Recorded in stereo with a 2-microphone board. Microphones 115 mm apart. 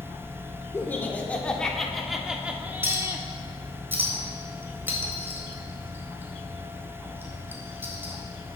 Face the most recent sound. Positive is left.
turn(degrees=-20)  # may be behind; listen again after turning